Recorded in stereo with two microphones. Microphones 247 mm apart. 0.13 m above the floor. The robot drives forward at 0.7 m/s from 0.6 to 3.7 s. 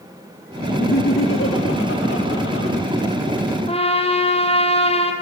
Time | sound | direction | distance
0.7 | laughter | 60° left (ahead or behind) | 2.5 m
3.7 | a trumpet | 25° left (ahead or behind) | 4 m